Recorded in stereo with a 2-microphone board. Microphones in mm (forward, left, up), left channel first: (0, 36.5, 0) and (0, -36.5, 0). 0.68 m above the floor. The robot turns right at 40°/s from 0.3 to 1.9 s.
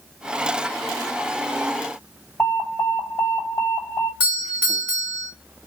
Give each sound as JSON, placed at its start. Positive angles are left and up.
{"t": 2.4, "sound": "an alarm", "side_deg": 40, "distance_m": 2.5}
{"t": 4.2, "sound": "a doorbell", "side_deg": -20, "distance_m": 1.6}